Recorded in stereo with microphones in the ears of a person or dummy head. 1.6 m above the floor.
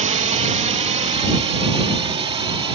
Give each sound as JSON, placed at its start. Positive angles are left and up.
{"t": 0.0, "sound": "a drone", "side_deg": -30}